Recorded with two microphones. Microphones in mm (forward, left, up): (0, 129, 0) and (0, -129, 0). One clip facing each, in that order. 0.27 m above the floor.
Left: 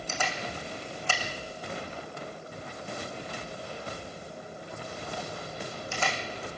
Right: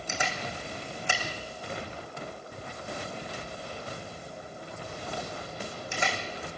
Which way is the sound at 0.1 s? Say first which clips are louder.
Even; 15° right (ahead or behind).